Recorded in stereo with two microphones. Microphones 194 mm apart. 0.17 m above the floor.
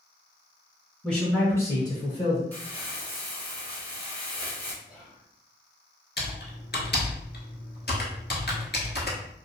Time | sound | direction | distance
1.0 | a man speaking | 5° left (ahead or behind) | 1.7 m
2.5 | crumpling | 10° left (ahead or behind) | 1.2 m
4.8 | whispering | 5° right (ahead or behind) | 1.5 m
6.2 | typing on a keyboard | 65° left (ahead or behind) | 0.9 m